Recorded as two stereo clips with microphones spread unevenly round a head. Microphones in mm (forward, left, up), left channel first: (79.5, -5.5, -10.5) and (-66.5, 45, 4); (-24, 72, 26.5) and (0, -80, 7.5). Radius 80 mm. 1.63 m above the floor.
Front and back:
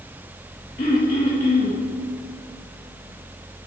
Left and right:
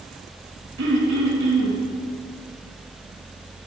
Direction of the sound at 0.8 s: 80° right.